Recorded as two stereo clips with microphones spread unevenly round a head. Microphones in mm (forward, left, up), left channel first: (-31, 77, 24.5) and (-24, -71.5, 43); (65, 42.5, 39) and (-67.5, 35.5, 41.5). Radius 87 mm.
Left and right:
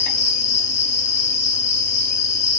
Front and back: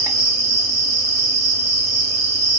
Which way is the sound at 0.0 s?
120° left.